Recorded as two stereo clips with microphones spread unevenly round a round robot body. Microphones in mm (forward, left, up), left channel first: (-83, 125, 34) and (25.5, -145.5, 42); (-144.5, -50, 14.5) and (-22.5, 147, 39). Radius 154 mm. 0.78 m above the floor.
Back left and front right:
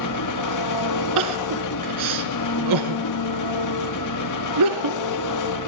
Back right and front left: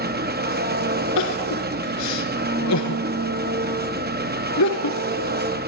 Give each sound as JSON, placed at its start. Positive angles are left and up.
{"t": 0.0, "sound": "an engine running", "azimuth_deg": 105, "distance_m": 1.2}
{"t": 1.2, "sound": "crying", "azimuth_deg": -85, "distance_m": 1.8}